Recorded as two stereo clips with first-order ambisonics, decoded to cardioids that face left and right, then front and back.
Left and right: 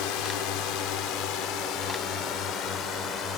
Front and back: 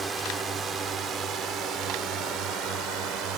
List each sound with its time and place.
0.0 s a drone: 110° left; by 3.4 s 145° left